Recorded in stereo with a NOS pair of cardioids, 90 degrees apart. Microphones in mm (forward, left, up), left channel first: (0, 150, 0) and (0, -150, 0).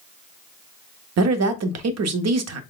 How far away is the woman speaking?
About 0.8 m.